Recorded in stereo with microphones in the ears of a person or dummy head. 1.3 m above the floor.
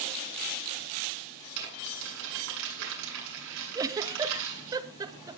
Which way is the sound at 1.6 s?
65° right (ahead or behind).